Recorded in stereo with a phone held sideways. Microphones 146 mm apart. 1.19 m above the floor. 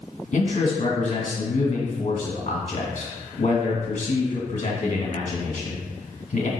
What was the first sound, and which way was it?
A man speaking, 55° left (ahead or behind).